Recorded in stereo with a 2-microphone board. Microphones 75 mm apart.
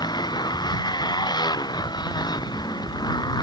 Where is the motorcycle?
80° left.